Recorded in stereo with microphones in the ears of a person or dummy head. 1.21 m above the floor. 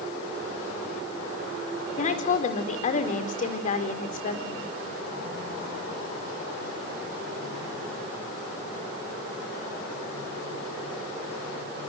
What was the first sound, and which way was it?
A woman speaking, 45° left (ahead or behind).